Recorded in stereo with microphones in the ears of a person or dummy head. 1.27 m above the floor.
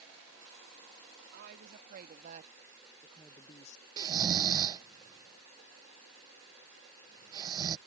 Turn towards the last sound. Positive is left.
turn(degrees=-20)  # may be behind; listen again after turning